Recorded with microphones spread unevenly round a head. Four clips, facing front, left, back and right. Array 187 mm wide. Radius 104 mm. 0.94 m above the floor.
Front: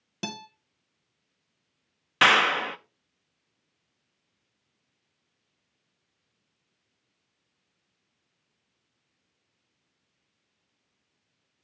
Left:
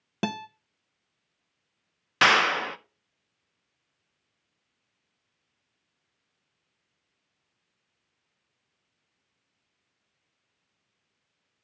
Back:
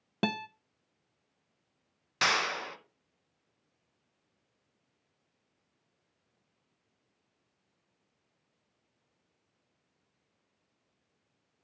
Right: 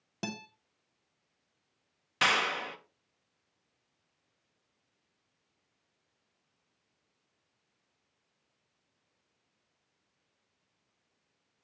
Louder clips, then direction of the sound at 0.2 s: Left 9 dB, back 5 dB; 115° left.